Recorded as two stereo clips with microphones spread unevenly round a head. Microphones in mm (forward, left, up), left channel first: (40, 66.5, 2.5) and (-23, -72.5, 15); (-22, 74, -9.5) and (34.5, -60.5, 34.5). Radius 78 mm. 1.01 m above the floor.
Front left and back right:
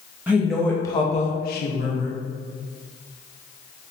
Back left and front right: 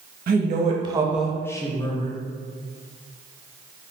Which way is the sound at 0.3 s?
35° right.